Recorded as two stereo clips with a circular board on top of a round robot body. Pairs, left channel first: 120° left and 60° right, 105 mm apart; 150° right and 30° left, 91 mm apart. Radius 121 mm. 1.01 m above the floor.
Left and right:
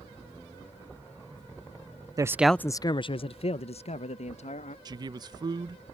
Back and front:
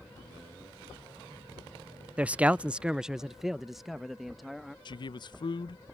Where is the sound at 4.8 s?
110° right.